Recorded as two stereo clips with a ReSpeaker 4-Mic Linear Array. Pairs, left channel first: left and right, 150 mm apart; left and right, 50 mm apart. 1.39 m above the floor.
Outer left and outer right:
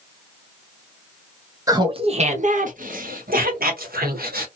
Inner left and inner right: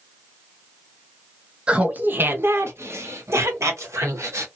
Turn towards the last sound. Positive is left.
turn(degrees=-80)